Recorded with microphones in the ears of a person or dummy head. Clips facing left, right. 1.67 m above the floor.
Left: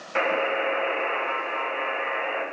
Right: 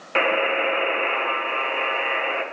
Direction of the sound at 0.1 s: 45° right (ahead or behind).